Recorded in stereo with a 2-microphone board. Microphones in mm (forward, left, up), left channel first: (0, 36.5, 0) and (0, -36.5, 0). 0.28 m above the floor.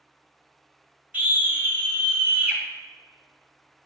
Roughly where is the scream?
Right.